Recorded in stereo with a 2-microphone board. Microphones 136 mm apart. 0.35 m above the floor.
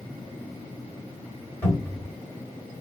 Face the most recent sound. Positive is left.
turn(degrees=15)  # may be behind; listen again after turning